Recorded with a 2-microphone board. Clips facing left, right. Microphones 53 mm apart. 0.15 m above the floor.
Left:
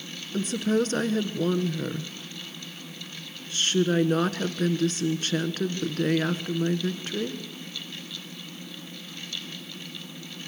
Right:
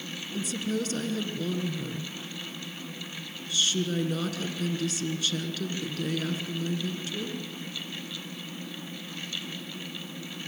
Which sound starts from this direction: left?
A woman speaking, at 0.3 s.